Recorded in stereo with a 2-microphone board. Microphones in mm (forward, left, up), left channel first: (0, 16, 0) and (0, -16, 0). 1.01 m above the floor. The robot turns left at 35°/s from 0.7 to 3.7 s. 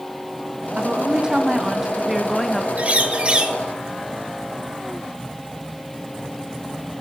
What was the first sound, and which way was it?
A woman speaking, 135° right.